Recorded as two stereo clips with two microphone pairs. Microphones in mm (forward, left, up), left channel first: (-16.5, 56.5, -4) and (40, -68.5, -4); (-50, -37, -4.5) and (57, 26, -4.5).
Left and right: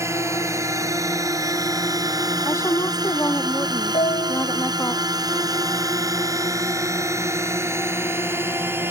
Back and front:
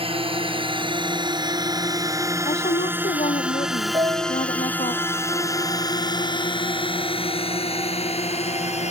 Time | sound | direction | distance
0.0 | a drone | straight ahead | ?
2.5 | a woman speaking | 175° right | ?
3.9 | a piano | 80° left | ?